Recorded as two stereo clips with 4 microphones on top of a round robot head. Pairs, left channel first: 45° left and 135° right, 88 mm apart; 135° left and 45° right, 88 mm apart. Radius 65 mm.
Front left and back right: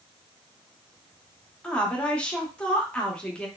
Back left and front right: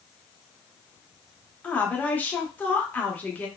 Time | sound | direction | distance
1.6 | a woman speaking | 100° left | 0.9 m